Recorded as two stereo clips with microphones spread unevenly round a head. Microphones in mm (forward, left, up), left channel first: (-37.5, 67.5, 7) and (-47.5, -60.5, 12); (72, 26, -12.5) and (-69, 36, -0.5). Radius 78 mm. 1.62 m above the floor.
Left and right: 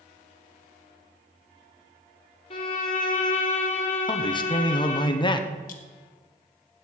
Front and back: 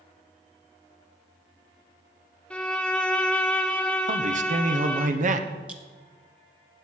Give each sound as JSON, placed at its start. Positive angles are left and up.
{"t": 2.5, "sound": "a violin", "azimuth_deg": 80, "distance_m": 1.4}
{"t": 4.1, "sound": "a man speaking", "azimuth_deg": 140, "distance_m": 1.0}
{"t": 5.7, "sound": "a clink", "azimuth_deg": 95, "distance_m": 1.3}